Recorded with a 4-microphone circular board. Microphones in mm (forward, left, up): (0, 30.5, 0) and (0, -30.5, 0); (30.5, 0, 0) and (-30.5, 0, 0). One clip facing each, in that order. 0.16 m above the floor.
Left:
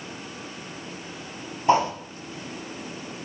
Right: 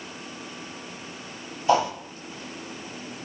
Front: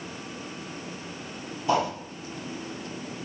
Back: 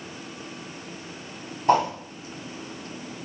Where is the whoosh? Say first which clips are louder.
Left 1 dB, back 4 dB; 140° left, 4 m.